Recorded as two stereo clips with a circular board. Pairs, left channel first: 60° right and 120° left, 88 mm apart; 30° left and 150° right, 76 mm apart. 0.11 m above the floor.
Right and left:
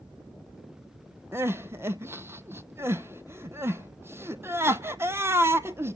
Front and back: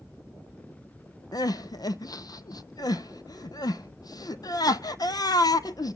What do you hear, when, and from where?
1.3 s crying: 60° left, 0.6 m